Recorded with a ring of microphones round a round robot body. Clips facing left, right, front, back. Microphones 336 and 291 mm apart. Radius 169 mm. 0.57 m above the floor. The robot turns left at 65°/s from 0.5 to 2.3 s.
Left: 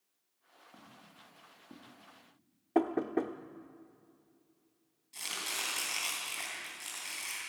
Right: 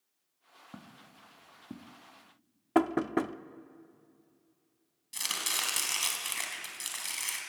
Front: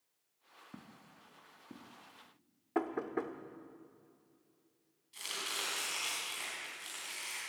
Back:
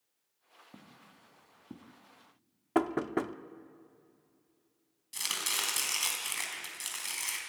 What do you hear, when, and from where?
0.7 s footsteps: 70° right, 2.5 m; by 2.0 s 125° right, 1.4 m
2.8 s knocking: 145° right, 0.6 m
5.1 s chopping: 145° right, 4 m